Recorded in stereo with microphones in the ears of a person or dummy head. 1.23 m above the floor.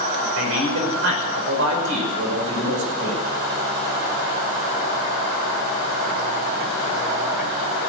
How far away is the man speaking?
About 5.5 m.